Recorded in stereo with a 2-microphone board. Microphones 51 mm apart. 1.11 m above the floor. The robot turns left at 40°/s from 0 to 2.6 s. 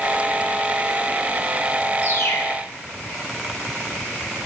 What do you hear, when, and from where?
2.0 s a bird: 50° left (ahead or behind), 1.1 m; by 2.6 s 75° left (ahead or behind), 1.1 m